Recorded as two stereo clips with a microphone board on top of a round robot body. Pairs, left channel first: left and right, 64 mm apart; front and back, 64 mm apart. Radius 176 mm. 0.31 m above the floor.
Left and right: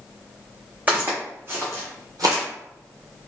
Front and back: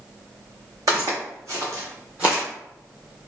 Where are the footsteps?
155° right, 1.6 m; by 2.4 s 95° right, 0.8 m.